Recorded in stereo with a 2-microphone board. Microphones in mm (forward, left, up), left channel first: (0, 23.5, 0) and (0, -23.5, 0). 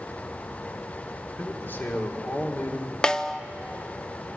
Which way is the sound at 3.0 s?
15° left (ahead or behind).